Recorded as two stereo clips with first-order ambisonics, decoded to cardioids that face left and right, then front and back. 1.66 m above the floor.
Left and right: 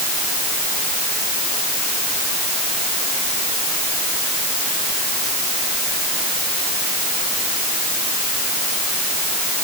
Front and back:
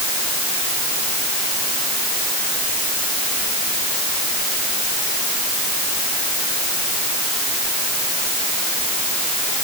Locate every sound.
Only background noise.